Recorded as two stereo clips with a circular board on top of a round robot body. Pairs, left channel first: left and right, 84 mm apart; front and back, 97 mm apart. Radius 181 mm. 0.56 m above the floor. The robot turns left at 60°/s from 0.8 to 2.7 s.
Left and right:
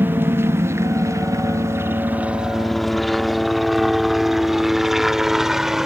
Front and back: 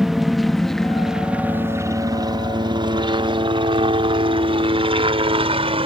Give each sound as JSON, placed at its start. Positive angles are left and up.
{"t": 0.0, "sound": "a helicopter", "azimuth_deg": -100}